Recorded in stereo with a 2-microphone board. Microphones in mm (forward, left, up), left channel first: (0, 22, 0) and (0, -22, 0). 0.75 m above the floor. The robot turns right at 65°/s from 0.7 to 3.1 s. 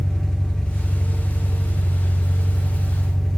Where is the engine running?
10° left, 1.4 m; by 3.4 s 170° left, 1.4 m.